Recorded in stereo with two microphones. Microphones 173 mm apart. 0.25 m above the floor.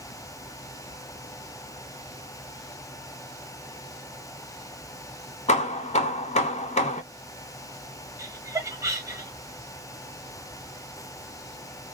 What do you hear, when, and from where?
5.5 s hammering: 40° left (ahead or behind), 0.6 m
8.2 s laughter: 20° right (ahead or behind), 0.9 m